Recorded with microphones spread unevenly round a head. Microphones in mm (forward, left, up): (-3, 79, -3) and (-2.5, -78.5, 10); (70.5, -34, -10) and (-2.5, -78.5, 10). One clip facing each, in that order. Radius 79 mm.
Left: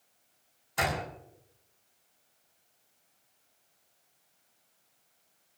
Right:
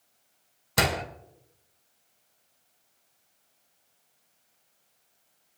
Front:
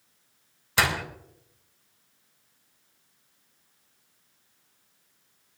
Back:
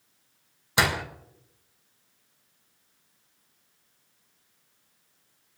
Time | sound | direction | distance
0.8 | a door slam | 80° right | 3 m